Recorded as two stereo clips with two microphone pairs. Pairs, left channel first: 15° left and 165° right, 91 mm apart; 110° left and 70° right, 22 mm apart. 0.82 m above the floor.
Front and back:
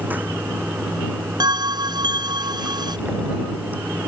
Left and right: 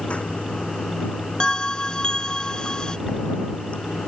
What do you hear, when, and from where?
0.0 s running water: 125° left
1.4 s a bell: 160° left